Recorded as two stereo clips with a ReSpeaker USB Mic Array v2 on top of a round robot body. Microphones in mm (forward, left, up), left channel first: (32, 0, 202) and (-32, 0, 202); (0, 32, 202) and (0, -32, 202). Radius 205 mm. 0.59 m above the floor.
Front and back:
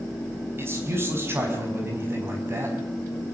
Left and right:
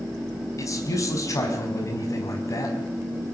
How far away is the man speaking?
About 5 m.